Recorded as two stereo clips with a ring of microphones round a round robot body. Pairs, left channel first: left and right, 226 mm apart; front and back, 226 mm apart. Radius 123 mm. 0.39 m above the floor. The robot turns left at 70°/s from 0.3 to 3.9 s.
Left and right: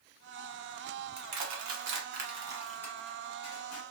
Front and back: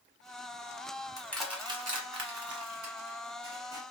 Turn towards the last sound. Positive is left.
turn(degrees=95)